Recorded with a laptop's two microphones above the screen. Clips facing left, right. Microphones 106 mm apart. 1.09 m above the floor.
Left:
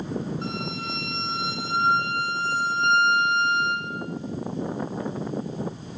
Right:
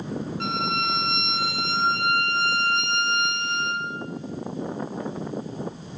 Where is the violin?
65° right (ahead or behind), 8 m.